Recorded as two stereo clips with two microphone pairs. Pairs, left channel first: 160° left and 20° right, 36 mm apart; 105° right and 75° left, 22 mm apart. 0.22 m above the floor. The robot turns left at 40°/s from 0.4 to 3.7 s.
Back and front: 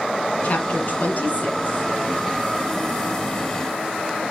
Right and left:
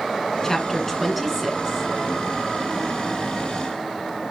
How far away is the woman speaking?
About 1.8 m.